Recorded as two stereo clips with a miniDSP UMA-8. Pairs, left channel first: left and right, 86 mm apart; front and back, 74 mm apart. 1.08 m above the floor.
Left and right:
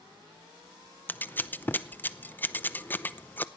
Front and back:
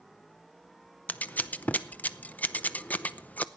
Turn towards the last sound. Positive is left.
turn(degrees=45)